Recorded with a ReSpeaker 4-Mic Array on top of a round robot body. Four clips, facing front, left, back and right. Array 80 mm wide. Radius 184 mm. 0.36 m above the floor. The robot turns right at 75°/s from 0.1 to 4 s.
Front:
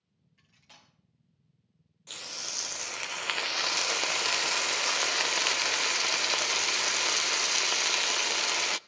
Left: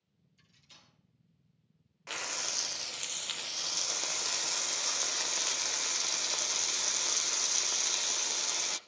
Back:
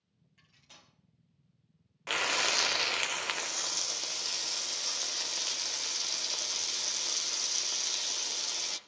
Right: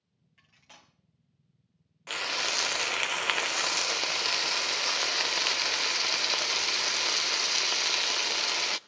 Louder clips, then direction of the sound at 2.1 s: Right 7 dB, back 13 dB; 175° right.